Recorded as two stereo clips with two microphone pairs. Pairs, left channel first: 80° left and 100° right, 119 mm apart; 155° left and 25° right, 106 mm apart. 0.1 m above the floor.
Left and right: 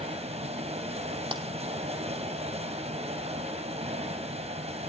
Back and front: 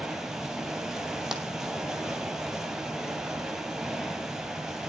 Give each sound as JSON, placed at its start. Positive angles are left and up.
{"t": 0.0, "sound": "running water", "azimuth_deg": -110, "distance_m": 2.5}
{"t": 1.3, "sound": "a clap", "azimuth_deg": -110, "distance_m": 1.5}